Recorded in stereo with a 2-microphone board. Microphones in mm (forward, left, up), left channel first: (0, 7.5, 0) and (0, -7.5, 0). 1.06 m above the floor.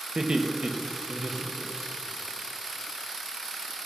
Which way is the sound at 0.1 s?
60° right (ahead or behind).